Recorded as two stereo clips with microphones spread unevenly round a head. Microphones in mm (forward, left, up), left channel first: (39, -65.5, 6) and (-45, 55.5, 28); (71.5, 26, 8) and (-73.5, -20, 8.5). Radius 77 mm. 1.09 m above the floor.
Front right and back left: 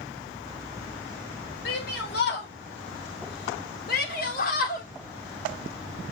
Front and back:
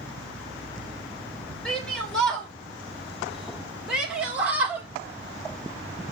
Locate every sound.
1.6 s a shout: 65° right, 5 m; by 4.9 s 85° right, 3 m